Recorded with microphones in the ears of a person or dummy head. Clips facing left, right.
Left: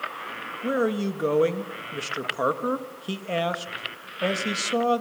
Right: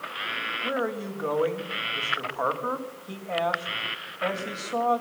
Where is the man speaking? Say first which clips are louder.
Left 5 dB; 35° left (ahead or behind), 1.9 m.